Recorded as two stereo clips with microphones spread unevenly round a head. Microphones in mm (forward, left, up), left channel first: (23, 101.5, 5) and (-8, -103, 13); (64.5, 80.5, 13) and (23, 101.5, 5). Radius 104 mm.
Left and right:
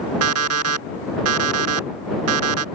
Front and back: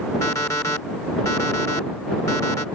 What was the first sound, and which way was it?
An alarm clock, 80° right.